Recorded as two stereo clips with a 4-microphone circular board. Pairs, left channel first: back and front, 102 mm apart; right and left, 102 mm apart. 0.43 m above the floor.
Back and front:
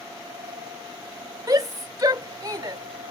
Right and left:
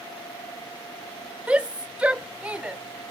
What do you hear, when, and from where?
1.5 s a shout: 20° left